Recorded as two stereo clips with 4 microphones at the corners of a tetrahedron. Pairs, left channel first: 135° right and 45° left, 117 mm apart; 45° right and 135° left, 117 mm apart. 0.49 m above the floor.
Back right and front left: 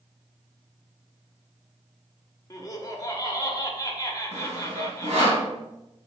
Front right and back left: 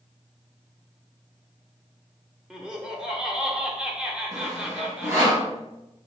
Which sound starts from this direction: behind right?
Laughter, at 2.5 s.